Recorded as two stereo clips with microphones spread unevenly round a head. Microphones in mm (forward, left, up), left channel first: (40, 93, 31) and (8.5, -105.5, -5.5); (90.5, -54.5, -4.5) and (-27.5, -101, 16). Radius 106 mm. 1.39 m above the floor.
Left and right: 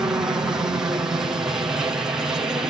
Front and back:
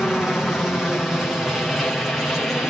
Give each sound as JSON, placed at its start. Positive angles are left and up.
{"t": 0.0, "sound": "a helicopter", "azimuth_deg": -50}